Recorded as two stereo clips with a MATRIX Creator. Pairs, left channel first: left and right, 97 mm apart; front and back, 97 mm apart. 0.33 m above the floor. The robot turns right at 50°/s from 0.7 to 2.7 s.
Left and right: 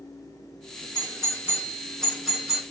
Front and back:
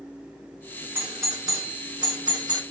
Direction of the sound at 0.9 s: 115° left.